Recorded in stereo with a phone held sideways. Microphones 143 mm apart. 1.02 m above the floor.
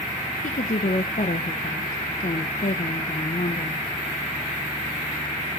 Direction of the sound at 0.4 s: 70° left (ahead or behind).